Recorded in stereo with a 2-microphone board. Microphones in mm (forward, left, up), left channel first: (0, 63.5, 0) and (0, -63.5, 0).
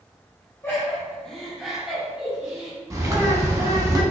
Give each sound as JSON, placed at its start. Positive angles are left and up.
{"t": 0.6, "sound": "laughter", "side_deg": 20, "distance_m": 1.4}
{"t": 2.9, "sound": "a bird", "side_deg": -25, "distance_m": 0.6}